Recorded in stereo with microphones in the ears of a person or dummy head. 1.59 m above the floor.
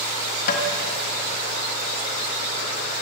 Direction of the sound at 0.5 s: 55° left (ahead or behind).